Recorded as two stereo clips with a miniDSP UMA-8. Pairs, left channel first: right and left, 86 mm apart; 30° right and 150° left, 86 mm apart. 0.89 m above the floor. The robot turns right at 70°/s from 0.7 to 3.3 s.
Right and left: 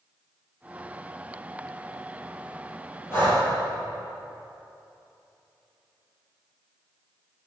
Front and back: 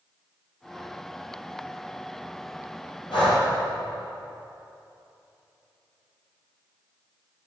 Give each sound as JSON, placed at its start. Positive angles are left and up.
{"t": 3.1, "sound": "breathing", "azimuth_deg": -30, "distance_m": 4.0}